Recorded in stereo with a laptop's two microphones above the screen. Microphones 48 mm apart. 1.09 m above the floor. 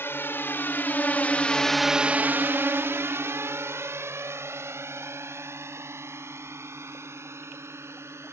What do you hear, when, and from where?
0.0 s a drone: 60° left (ahead or behind); by 8.3 s 80° right